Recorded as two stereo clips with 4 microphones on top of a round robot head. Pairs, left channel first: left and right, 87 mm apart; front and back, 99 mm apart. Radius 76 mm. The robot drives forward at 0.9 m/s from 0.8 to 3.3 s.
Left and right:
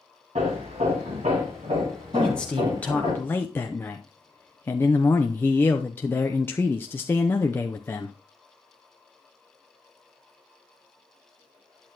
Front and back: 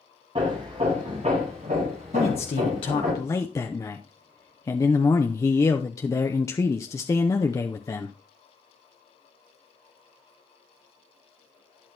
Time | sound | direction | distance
0.3 | hammering | 125° right | 3 m
2.1 | a man speaking | 10° left | 1.4 m